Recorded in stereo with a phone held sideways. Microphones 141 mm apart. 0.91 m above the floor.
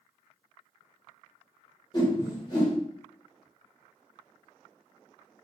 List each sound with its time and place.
1.9 s a whoosh: 30° left (ahead or behind), 1.5 m